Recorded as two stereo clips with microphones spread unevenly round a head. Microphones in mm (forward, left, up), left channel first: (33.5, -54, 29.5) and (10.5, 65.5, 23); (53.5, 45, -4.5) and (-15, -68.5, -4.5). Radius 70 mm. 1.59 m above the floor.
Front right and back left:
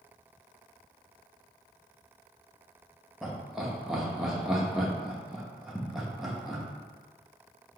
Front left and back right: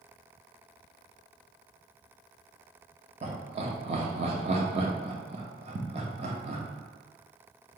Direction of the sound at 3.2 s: 170° right.